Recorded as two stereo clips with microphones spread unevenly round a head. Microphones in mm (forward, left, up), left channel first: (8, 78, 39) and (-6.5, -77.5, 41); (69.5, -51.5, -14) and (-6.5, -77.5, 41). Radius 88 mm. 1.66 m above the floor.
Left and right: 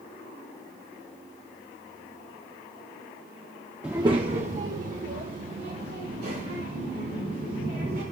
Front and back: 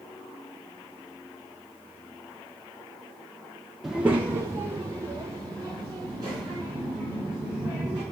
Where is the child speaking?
175° right, 0.5 m; by 8.0 s 130° right, 4 m.